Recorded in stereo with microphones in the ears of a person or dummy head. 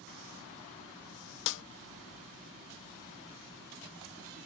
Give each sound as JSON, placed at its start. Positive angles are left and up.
{"t": 1.5, "sound": "a snare drum", "side_deg": 65}